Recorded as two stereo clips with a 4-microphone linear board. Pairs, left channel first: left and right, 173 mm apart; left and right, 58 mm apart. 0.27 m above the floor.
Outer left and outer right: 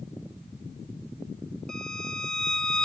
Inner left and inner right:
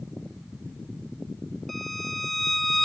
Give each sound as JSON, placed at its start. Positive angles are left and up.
{"t": 1.7, "sound": "a violin", "side_deg": 5, "distance_m": 0.5}